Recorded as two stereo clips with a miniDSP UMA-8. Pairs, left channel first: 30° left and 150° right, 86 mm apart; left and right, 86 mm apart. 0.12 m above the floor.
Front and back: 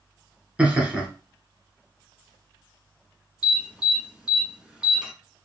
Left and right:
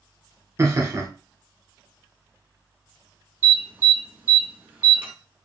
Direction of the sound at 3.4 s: 80° right.